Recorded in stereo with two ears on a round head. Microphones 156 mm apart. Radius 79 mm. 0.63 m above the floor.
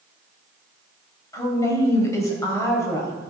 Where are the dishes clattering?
No dishes clattering in this recording.